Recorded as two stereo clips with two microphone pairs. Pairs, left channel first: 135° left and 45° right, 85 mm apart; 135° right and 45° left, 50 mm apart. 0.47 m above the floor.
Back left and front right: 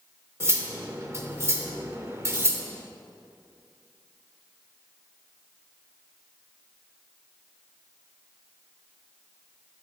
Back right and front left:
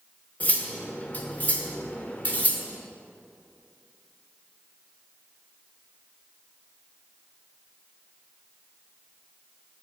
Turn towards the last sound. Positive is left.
turn(degrees=-95)